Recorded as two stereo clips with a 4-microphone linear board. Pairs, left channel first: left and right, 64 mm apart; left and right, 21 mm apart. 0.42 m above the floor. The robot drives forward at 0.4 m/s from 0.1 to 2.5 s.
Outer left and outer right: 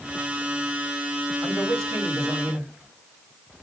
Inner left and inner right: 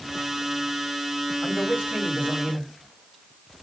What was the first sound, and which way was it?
A man speaking, 60° right (ahead or behind).